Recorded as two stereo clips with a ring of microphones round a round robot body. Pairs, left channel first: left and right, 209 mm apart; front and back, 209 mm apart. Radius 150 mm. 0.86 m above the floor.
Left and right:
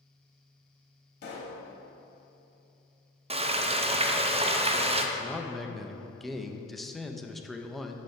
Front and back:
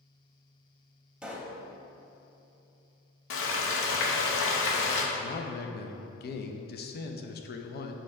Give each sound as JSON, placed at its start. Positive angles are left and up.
{"t": 1.2, "sound": "a pop", "azimuth_deg": 95, "distance_m": 0.9}
{"t": 3.3, "sound": "frying", "azimuth_deg": -25, "distance_m": 0.6}
{"t": 5.2, "sound": "a man speaking", "azimuth_deg": 0, "distance_m": 0.6}